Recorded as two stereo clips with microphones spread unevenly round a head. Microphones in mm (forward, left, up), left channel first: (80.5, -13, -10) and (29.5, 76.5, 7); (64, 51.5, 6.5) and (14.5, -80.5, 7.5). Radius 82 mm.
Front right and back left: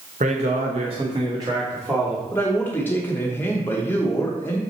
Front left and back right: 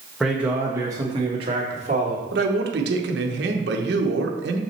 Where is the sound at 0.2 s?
160° left, 1.2 m; by 2.2 s 160° right, 1.7 m.